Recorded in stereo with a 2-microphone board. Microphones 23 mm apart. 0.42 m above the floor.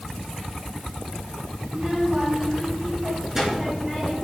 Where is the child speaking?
40° right (ahead or behind), 3 m; by 4.1 s 10° right (ahead or behind), 4 m.